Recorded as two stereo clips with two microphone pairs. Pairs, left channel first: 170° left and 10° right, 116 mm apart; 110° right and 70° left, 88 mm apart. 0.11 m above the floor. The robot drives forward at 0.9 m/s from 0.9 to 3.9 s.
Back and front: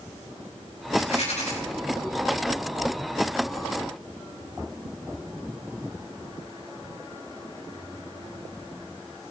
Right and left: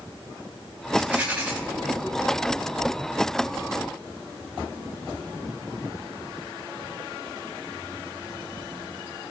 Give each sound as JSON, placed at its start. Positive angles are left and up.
{"t": 1.0, "sound": "a rattle", "azimuth_deg": 145, "distance_m": 6.0}